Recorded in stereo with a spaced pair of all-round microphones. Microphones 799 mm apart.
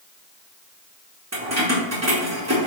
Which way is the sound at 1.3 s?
20° right (ahead or behind).